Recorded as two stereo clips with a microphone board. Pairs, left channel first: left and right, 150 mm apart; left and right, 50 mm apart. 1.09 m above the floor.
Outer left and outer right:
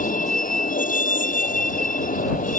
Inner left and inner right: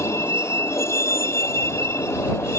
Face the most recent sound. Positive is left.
turn(degrees=60)  # may be behind; listen again after turning